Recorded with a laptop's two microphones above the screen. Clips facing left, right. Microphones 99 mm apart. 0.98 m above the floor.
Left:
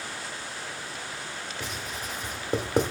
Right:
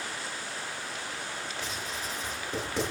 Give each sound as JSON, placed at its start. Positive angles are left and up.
{"t": 1.6, "sound": "writing", "side_deg": 55, "distance_m": 1.0}